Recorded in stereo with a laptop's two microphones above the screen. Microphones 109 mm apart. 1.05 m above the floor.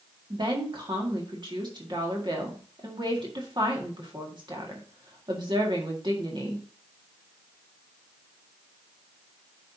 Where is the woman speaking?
45° right (ahead or behind), 1.8 m.